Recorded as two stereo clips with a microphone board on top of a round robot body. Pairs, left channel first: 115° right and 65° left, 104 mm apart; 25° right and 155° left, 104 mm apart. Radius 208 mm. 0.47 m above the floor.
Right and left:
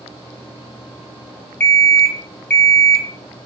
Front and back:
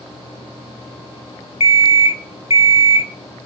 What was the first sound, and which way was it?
An alarm clock, 35° right.